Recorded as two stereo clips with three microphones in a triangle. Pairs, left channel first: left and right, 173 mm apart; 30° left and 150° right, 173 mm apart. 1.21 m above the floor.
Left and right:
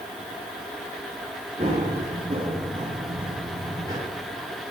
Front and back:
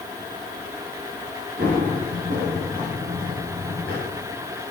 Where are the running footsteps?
140° right, 8 m; by 4.0 s 155° right, 7.5 m.